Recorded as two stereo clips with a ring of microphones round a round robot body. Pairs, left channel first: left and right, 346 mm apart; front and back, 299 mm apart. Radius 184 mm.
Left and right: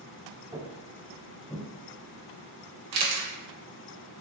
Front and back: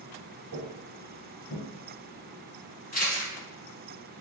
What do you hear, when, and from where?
0.5 s footsteps: 160° right, 0.8 m; by 1.7 s 5° left, 1.0 m
2.9 s a camera shutter: 70° right, 1.0 m